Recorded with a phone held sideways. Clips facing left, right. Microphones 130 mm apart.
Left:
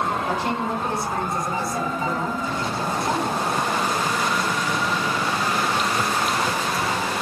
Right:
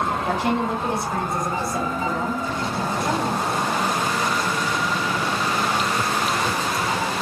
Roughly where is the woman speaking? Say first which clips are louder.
Right 2 dB; right.